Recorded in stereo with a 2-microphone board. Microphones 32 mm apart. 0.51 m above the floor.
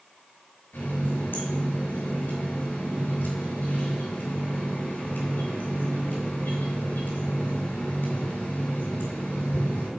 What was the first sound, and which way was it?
A running tap, 80° left.